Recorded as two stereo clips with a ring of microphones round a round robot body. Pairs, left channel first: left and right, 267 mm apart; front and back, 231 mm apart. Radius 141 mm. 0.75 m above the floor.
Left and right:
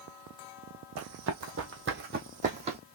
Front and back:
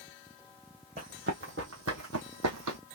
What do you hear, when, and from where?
1.0 s running footsteps: 120° right, 1.6 m; by 2.8 s 160° right, 1.6 m